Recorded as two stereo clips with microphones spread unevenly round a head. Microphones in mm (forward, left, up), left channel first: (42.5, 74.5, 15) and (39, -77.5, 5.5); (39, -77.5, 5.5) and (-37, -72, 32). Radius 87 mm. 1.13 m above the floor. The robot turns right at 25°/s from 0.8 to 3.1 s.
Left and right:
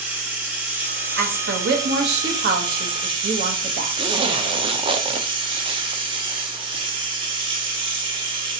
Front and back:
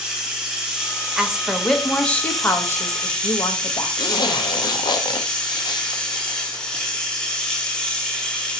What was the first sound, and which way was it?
Running water, 170° right.